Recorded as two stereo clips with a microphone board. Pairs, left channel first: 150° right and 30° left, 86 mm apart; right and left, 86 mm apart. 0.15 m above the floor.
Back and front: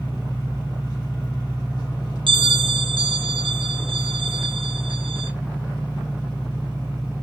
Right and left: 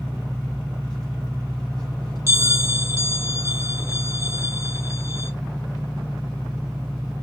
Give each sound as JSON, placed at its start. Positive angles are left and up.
{"t": 0.0, "sound": "an engine running", "azimuth_deg": -170, "distance_m": 2.5}
{"t": 2.3, "sound": "a bell", "azimuth_deg": 30, "distance_m": 1.0}